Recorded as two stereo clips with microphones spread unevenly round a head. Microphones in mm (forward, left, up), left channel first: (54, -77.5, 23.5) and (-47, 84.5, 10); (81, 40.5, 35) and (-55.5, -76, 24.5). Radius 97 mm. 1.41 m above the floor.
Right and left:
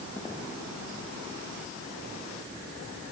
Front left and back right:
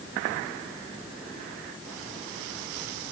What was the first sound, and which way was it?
Only background noise.